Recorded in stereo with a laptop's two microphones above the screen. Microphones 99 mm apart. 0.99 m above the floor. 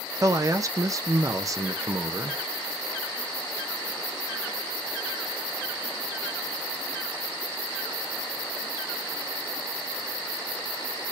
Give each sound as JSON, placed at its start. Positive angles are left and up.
{"t": 0.2, "sound": "a man speaking", "side_deg": -35, "distance_m": 0.7}